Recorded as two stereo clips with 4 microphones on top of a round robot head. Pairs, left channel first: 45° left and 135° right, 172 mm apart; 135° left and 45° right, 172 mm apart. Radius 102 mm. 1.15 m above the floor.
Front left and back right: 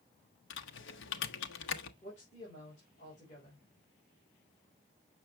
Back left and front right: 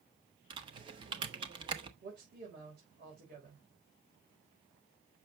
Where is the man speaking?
10° right, 4.5 m.